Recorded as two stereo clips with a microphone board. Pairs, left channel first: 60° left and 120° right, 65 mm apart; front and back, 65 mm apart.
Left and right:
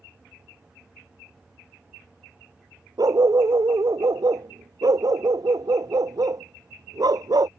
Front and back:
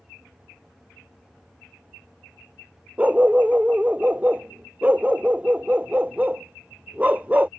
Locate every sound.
3.0 s a dog barking: 115° right